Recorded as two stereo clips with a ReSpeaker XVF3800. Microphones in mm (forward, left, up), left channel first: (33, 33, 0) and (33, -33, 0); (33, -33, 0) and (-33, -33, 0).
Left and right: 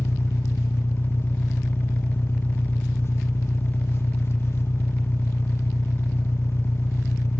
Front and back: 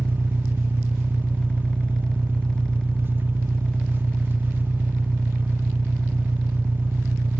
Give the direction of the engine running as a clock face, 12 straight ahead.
8 o'clock.